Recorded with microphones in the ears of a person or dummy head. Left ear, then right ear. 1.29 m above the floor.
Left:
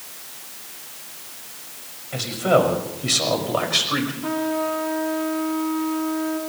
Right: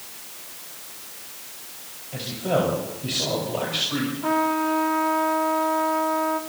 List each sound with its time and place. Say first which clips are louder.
2.1 s a man speaking: left 6 dB; 60° left (ahead or behind), 6 m; by 4.1 s 55° left (ahead or behind), 5 m
4.2 s a trumpet: right 2 dB; 15° right (ahead or behind), 2.5 m